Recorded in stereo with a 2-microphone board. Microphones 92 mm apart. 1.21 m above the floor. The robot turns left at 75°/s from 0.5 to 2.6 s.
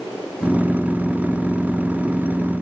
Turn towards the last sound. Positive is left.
No sound to turn to.